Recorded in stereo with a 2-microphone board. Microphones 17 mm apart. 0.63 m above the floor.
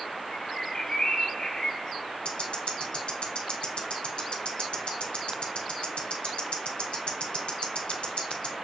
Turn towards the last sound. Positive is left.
turn(degrees=65)  # may be behind; listen again after turning